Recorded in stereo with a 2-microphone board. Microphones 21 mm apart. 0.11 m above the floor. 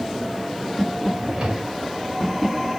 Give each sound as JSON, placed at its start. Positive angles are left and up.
{"t": 1.1, "sound": "a drawer", "side_deg": -50, "distance_m": 4.5}